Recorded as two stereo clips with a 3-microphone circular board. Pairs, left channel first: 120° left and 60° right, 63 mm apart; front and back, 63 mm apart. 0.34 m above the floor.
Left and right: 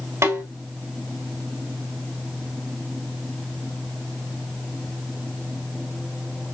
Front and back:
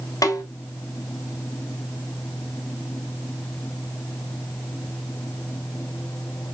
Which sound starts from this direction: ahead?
A snare drum, at 0.2 s.